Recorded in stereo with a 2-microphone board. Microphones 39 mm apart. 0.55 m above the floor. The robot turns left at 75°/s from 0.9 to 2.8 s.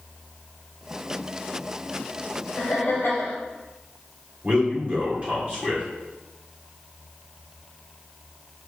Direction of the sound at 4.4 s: 30° right (ahead or behind).